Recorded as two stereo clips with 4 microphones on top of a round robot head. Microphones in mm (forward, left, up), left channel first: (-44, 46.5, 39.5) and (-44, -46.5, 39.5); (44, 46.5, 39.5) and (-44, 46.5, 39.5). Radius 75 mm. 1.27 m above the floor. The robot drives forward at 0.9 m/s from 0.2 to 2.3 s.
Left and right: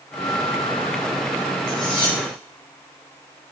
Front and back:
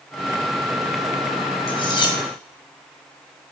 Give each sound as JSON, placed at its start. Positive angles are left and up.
{"t": 1.7, "sound": "cutlery clinking", "azimuth_deg": 30, "distance_m": 1.8}